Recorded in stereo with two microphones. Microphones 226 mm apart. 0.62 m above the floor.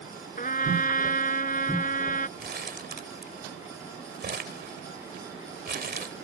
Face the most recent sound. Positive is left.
turn(degrees=-45)  # may be behind; listen again after turning